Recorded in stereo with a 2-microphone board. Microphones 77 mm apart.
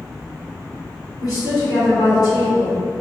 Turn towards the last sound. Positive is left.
turn(degrees=55)  # may be behind; listen again after turning